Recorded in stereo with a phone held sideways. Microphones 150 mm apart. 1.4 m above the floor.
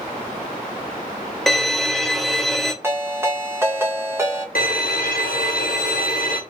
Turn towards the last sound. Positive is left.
turn(degrees=80)